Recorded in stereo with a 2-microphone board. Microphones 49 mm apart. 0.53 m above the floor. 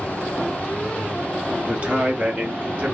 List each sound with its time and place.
1.7 s a man speaking: 25° right (ahead or behind), 1.0 m; by 2.9 s 35° right (ahead or behind), 1.0 m